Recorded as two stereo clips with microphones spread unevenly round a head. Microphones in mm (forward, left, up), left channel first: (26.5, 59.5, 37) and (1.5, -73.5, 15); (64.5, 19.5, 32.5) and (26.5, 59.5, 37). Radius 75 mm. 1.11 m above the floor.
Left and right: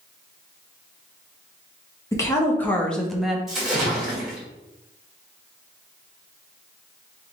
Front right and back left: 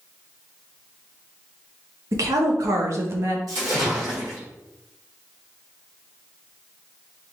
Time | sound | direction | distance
2.1 | a woman speaking | 150° left | 1.1 m
3.5 | a splash | 165° left | 1.4 m